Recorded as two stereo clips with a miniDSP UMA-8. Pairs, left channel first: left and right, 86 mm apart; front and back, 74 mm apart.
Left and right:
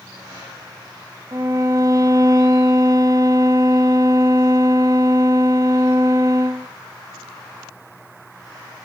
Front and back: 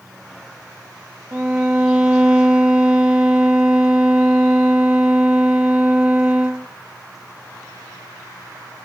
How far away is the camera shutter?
I don't hear a camera shutter.